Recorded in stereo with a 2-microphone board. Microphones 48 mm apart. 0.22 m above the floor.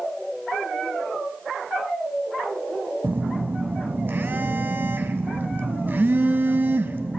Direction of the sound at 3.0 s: 45° right (ahead or behind).